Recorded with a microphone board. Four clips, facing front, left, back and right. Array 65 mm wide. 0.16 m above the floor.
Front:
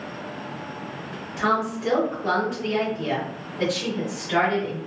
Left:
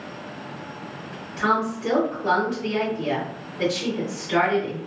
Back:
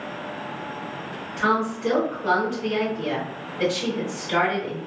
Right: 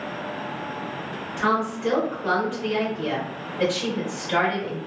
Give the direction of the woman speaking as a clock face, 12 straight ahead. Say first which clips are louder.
Left 1 dB, back 1 dB; 4 o'clock.